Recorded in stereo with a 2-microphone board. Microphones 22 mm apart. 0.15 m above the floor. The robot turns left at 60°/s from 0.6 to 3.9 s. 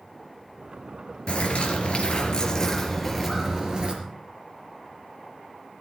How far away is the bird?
About 3.5 m.